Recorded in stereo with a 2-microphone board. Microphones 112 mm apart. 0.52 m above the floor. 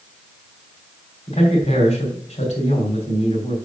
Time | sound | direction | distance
1.3 | a man speaking | 75° left (ahead or behind) | 3 m